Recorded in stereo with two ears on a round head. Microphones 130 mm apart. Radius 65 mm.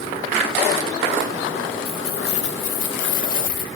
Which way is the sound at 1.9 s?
40° left (ahead or behind).